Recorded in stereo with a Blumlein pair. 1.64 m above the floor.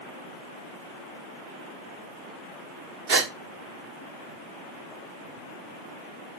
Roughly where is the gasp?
Ahead right.